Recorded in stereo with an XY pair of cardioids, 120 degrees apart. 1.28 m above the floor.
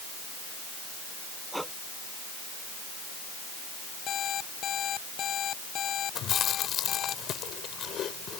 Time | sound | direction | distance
1.5 | breathing | 5° right | ?
4.1 | an alarm clock | 55° left | ?
6.2 | chewing | 55° left | ?